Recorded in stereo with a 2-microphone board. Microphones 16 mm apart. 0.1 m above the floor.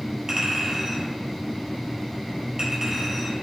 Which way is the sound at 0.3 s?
50° right (ahead or behind).